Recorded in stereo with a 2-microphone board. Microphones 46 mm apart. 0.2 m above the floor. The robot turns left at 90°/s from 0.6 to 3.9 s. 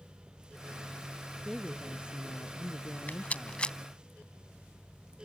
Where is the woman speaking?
170° right; by 4.1 s 40° right.